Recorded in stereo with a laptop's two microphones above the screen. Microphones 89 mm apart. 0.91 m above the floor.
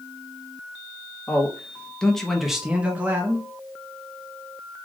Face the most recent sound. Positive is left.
turn(degrees=-30)  # may be behind; listen again after turning